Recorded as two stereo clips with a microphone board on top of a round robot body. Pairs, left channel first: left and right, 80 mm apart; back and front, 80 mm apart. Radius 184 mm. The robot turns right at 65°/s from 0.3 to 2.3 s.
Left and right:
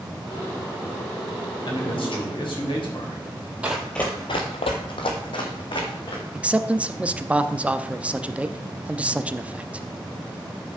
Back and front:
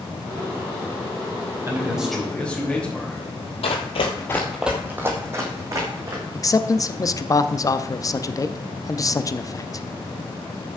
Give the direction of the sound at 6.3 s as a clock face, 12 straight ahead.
5 o'clock.